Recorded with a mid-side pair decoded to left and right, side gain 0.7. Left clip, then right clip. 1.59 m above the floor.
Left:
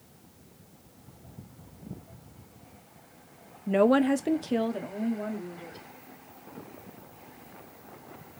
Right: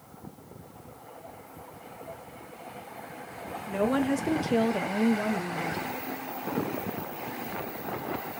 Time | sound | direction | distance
3.7 | a woman speaking | 40° left | 0.8 m